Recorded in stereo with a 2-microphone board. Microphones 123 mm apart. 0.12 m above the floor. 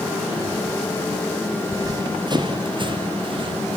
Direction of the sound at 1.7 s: 30° right (ahead or behind).